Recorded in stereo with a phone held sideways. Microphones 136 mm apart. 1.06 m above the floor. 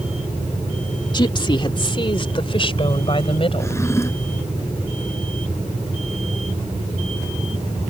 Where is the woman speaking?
35° left (ahead or behind); by 3.8 s 45° left (ahead or behind).